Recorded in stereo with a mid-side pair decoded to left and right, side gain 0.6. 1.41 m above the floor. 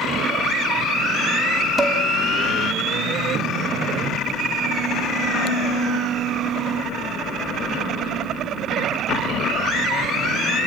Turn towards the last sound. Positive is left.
turn(degrees=-15)